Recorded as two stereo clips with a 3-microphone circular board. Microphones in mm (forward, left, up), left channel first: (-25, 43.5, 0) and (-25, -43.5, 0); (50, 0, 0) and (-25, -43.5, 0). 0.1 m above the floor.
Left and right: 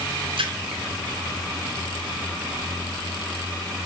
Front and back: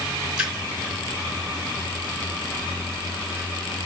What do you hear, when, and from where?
0.4 s a splash: 70° right, 4 m